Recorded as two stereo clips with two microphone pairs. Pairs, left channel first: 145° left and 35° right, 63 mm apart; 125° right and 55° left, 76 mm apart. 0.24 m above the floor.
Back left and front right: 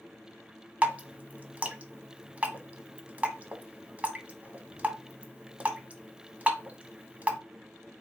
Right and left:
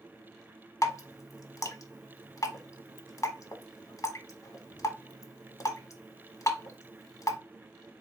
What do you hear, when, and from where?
0.8 s dripping: 100° right, 0.7 m